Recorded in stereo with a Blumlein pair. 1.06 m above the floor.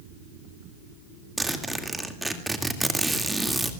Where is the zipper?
5° right, 2 m.